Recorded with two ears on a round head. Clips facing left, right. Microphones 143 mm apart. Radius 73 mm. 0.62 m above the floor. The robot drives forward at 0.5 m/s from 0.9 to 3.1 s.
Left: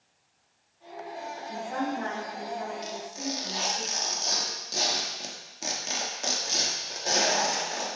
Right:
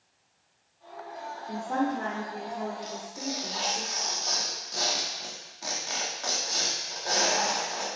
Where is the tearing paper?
30° left (ahead or behind), 1.2 m.